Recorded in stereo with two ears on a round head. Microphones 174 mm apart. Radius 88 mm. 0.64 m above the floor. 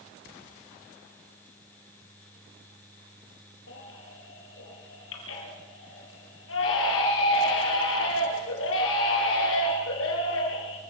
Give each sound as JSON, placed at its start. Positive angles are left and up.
{"t": 3.7, "sound": "a baby crying", "side_deg": 75, "distance_m": 7.0}